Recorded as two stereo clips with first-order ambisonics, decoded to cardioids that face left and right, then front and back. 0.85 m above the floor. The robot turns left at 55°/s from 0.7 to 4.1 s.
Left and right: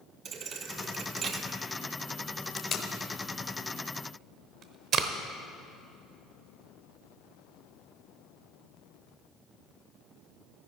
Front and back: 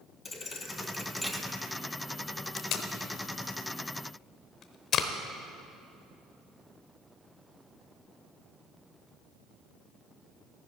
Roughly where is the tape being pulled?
Ahead left.